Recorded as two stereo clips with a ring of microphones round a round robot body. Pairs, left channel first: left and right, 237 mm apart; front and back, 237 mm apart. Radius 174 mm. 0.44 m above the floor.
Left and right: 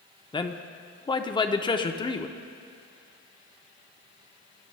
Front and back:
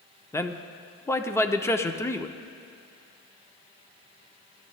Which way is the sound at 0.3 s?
60° left.